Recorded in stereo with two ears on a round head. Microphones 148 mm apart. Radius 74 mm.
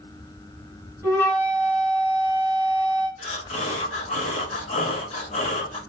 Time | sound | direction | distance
1.0 | a flute | 15° left (ahead or behind) | 1.8 m
3.2 | breathing | 40° left (ahead or behind) | 1.1 m